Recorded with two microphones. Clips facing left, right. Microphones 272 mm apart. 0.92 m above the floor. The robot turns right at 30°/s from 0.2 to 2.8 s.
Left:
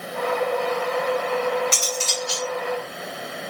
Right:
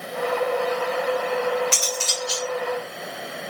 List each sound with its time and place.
1.7 s cutlery clinking: 80° right, 2.5 m; by 2.5 s 60° right (ahead or behind), 2.5 m